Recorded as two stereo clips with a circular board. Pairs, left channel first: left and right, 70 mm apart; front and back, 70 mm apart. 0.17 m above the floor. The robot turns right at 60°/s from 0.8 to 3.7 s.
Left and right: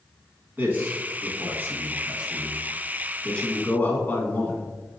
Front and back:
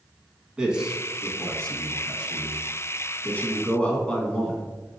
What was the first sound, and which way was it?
A man speaking, 115° right.